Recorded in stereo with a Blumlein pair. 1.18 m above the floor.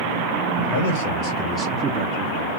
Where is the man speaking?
65° left, 1.0 m; by 2.5 s 60° right, 1.0 m.